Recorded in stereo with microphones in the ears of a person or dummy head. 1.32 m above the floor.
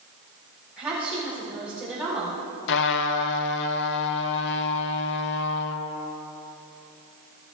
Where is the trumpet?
65° left (ahead or behind), 1.0 m.